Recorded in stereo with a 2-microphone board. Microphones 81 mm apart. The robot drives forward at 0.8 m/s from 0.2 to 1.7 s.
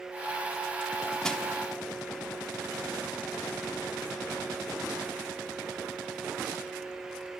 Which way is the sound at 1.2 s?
10° left (ahead or behind).